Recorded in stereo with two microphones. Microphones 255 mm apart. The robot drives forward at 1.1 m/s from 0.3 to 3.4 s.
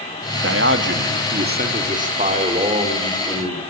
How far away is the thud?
No thud in this recording.